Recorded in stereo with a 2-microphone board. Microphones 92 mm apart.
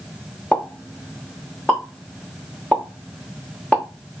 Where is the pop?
15° left (ahead or behind), 0.9 m.